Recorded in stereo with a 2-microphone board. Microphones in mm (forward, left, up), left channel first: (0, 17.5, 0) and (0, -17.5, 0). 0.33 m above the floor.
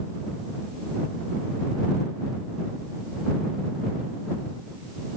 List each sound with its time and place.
Only background noise.